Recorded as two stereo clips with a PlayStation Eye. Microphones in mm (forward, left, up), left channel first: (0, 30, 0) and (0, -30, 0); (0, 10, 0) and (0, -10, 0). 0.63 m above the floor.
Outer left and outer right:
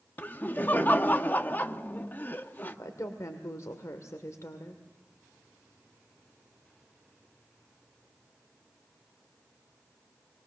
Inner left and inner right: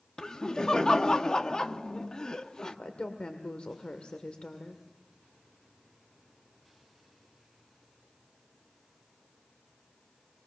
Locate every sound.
0.2 s laughter: 35° left (ahead or behind), 0.9 m
2.6 s a woman speaking: 65° left (ahead or behind), 1.8 m